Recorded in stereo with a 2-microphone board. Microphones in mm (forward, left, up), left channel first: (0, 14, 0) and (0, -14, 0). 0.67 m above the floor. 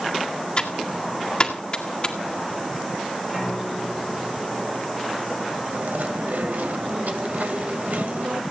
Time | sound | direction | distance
0.6 | typing on a keyboard | 35° left (ahead or behind) | 1.9 m
3.3 | a piano | 15° right (ahead or behind) | 6.5 m
5.7 | chewing | 80° right | 2.5 m